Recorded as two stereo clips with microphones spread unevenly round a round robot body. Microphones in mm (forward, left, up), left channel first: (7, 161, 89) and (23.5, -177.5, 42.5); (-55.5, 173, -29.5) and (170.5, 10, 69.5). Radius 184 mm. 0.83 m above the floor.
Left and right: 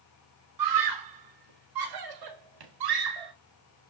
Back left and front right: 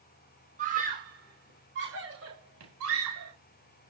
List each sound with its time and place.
0.6 s a scream: 110° right, 3 m; by 3.3 s 90° right, 5 m